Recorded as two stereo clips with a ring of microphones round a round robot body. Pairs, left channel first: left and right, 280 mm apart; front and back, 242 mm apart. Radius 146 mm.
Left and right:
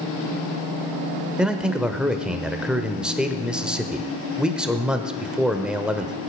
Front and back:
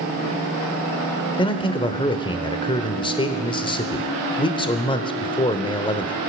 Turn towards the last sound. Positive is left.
turn(degrees=-10)